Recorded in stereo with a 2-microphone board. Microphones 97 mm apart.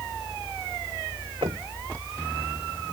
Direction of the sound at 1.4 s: 75° right (ahead or behind).